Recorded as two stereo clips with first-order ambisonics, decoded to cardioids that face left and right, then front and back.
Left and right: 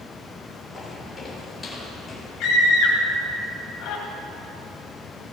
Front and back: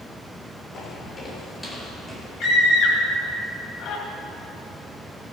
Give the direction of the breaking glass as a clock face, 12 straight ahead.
I don't hear breaking glass.